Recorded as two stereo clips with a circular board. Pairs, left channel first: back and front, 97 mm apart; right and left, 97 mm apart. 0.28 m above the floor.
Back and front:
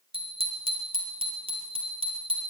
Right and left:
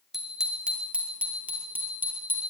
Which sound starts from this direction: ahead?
A bicycle bell, at 0.1 s.